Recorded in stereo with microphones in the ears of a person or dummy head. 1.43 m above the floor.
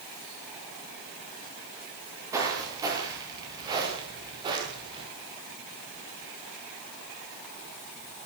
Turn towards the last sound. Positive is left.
turn(degrees=-30)  # may be behind; listen again after turning